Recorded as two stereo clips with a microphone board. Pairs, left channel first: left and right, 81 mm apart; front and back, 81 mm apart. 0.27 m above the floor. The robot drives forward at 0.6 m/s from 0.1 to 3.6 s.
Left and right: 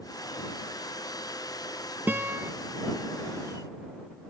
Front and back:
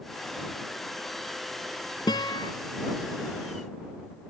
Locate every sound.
2.1 s a guitar: 25° right, 0.8 m; by 2.5 s 35° right, 0.6 m